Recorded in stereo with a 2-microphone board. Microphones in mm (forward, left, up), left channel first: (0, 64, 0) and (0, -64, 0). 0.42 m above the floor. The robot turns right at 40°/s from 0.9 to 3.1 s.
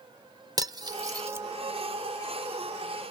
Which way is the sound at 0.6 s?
30° right (ahead or behind).